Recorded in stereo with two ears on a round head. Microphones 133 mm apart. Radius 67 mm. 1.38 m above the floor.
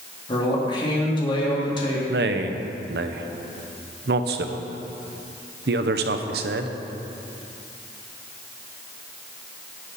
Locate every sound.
0.3 s a man speaking: 35° left (ahead or behind), 1.9 m
2.1 s a man speaking: 75° right (ahead or behind), 0.8 m